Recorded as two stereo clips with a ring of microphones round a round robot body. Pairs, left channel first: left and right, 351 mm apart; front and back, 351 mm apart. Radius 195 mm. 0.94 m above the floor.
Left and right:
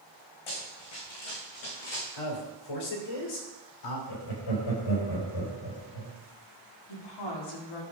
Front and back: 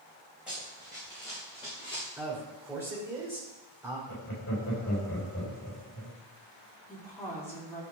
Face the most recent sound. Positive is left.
turn(degrees=85)